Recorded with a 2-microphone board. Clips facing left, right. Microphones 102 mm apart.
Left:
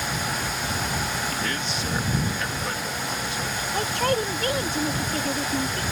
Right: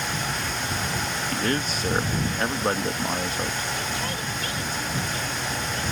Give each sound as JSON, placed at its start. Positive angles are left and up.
{"t": 1.3, "sound": "a man speaking", "side_deg": -40}
{"t": 3.7, "sound": "a man speaking", "side_deg": 60}